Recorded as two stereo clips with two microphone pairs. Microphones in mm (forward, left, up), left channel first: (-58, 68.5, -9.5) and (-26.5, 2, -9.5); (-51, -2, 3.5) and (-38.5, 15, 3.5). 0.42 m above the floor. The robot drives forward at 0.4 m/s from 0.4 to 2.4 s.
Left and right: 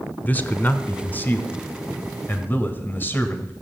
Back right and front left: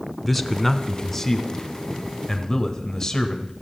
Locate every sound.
0.2 s a man speaking: 155° left, 1.0 m; by 3.5 s 170° left, 1.5 m